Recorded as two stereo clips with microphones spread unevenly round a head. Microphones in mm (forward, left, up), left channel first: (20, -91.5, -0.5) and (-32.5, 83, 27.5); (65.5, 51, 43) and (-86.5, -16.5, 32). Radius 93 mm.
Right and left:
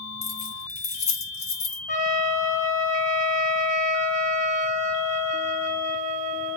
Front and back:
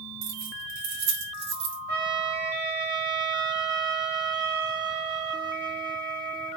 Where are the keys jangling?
130° right, 3 m.